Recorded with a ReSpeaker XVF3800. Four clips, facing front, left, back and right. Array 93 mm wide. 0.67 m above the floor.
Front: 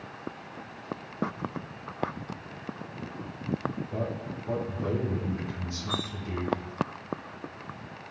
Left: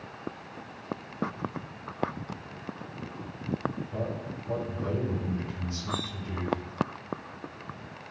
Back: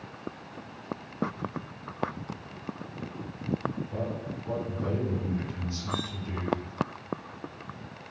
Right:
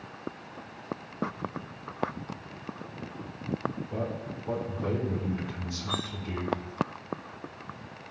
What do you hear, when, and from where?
3.9 s a man speaking: 90° right, 6 m
5.9 s cutlery clinking: 120° right, 2.5 m